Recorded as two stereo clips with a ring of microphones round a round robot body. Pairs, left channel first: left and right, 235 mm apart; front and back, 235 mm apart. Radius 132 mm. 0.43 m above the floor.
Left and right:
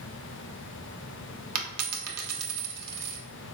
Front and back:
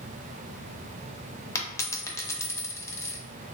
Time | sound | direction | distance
1.6 | a dropped coin | 80° right | 0.7 m